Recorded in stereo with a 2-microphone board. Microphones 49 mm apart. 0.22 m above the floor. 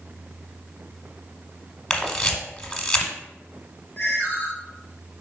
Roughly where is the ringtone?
Left.